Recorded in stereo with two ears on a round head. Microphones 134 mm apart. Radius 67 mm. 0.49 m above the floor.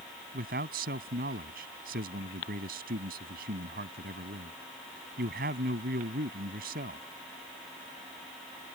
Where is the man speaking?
70° right (ahead or behind).